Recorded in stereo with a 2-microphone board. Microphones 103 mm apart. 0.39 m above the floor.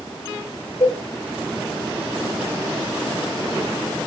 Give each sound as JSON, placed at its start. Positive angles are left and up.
{"t": 0.8, "sound": "a cowbell", "side_deg": 50, "distance_m": 2.5}